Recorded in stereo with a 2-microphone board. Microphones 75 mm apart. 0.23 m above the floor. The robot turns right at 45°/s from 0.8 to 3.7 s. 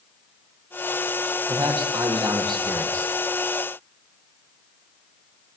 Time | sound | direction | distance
1.5 | a man speaking | 110° right | 6.5 m